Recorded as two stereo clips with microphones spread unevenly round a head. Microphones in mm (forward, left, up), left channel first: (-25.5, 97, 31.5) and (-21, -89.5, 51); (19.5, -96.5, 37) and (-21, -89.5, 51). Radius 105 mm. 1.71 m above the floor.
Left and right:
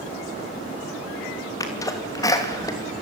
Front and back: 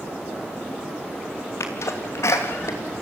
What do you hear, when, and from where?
1.6 s a sneeze: 15° left, 3 m